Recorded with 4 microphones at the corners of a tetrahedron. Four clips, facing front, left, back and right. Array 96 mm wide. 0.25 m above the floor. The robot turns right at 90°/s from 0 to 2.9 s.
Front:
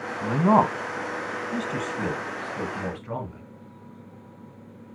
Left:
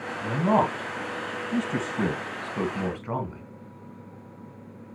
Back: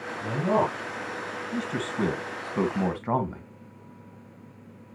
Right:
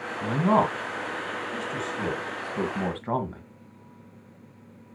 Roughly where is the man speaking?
Ahead right.